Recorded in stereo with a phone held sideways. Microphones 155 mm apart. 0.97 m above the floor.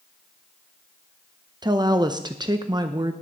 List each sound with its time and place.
1.6 s a woman speaking: 30° right (ahead or behind), 0.6 m